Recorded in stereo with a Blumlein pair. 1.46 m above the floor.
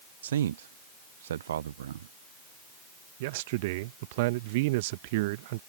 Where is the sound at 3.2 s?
50° right.